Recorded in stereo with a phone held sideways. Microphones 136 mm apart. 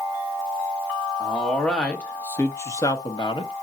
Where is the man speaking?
Centre (ahead or behind), 2.0 m; by 3.5 s 40° left (ahead or behind), 1.1 m.